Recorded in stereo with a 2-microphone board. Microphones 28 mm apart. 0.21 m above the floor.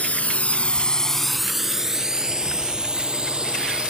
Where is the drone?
55° left (ahead or behind); by 3.9 s 35° right (ahead or behind).